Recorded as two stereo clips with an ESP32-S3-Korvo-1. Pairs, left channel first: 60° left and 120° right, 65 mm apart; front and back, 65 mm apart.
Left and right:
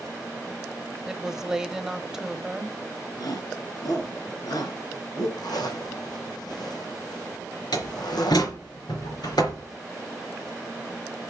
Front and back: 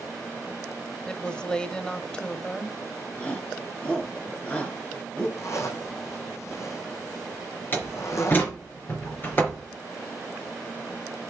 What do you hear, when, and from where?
1.1 s a woman speaking: 50° right, 0.9 m
3.2 s a shout: 70° left, 3.5 m
5.4 s a zipper: 45° left, 2.5 m
7.7 s a door slam: 60° left, 3 m